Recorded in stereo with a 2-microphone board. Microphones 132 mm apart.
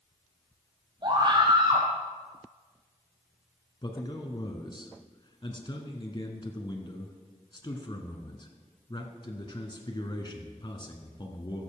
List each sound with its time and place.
1.0 s a scream: 40° right (ahead or behind), 5 m
3.8 s a man speaking: 35° left (ahead or behind), 1.3 m